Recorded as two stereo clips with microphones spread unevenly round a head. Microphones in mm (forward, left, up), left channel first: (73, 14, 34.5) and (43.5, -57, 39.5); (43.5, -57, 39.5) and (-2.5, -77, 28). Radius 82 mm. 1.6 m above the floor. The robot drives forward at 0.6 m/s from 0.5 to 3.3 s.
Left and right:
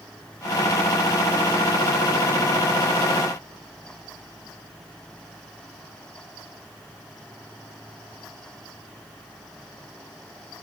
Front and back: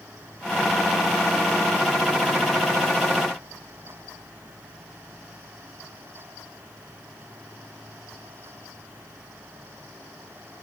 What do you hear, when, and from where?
Only background noise.